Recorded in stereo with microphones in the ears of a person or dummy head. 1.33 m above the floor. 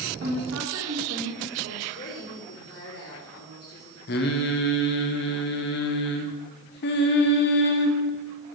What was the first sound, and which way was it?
A woman speaking, 80° right.